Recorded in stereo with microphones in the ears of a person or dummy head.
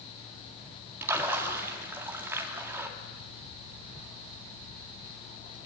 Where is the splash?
15° right (ahead or behind), 2.0 m.